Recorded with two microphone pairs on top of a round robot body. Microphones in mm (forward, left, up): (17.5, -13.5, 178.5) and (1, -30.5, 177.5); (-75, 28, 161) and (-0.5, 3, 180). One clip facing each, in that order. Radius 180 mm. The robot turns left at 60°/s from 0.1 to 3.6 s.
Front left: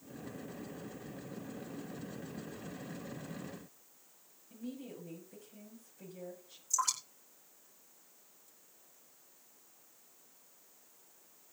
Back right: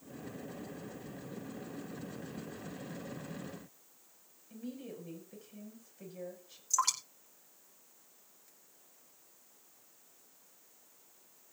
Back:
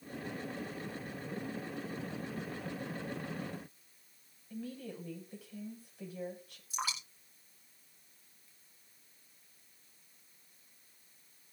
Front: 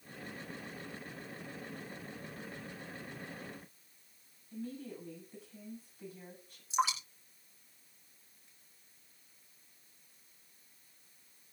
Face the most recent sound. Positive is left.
turn(degrees=-90)